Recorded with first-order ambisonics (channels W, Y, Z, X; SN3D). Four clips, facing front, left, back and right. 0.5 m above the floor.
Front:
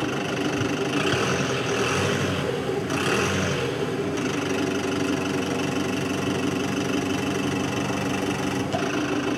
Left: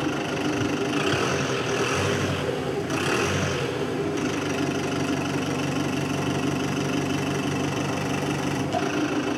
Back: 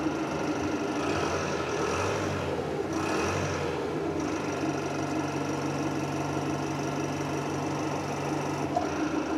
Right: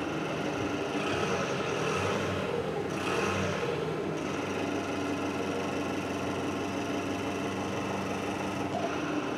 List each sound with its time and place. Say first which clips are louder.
0.0 s an engine running: left 6 dB, front 4 dB; 35° left, 4 m